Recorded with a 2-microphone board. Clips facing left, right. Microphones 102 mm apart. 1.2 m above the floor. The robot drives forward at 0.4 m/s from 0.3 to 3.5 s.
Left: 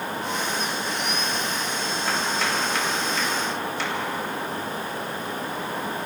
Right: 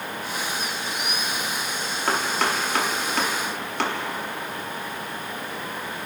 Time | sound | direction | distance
2.1 | chopping | 55° right (ahead or behind) | 3.5 m